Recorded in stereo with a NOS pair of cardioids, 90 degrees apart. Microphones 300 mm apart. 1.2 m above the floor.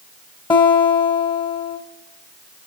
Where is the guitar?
15° left, 0.7 m.